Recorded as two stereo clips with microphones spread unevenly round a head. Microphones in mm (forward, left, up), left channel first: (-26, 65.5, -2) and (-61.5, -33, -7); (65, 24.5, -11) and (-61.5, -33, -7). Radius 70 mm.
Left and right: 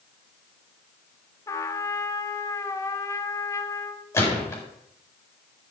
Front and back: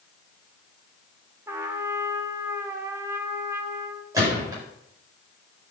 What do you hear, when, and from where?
1.5 s a trumpet: 130° left, 1.7 m
4.1 s a gunshot: 135° left, 8.5 m